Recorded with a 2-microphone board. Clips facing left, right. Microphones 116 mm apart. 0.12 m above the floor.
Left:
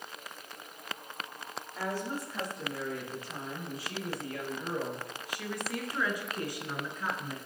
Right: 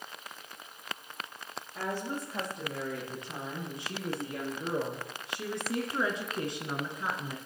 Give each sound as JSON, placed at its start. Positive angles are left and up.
{"t": 1.8, "sound": "a woman speaking", "side_deg": -20, "distance_m": 5.0}